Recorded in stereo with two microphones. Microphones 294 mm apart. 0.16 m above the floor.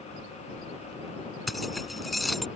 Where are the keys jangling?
Centre (ahead or behind).